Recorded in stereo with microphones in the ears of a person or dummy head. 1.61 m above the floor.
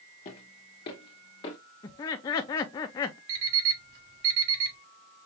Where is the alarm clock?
50° right (ahead or behind), 3 m.